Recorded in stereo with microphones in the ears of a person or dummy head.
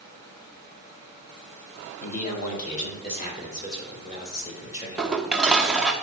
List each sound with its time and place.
2.0 s a man speaking: 45° left (ahead or behind), 1.7 m; by 6.0 s 30° left (ahead or behind), 4.5 m
5.0 s dishes clattering: 5° left (ahead or behind), 0.7 m